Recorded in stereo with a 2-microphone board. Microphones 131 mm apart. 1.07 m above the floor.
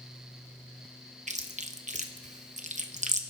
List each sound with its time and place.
1.3 s chewing: 65° right (ahead or behind), 1.1 m